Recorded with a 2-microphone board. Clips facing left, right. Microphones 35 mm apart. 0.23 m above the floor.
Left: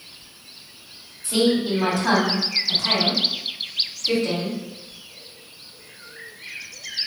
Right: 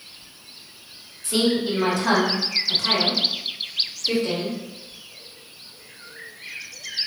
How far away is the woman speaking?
About 1.6 m.